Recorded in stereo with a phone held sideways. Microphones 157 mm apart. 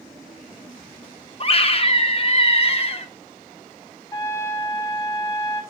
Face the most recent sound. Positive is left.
turn(degrees=20)  # may be behind; listen again after turning